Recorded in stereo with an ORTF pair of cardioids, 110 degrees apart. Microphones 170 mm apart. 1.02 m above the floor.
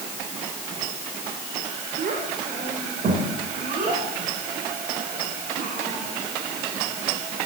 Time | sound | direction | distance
2.0 | a child speaking | 50° right | 3 m